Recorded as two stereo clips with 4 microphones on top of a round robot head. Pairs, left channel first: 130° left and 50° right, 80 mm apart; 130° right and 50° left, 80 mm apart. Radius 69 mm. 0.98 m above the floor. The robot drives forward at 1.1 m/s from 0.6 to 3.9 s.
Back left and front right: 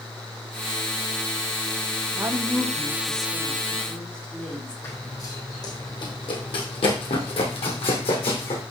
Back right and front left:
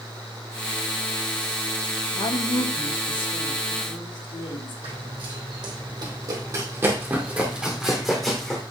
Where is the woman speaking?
105° right, 1.2 m; by 4.7 s 155° right, 2.5 m.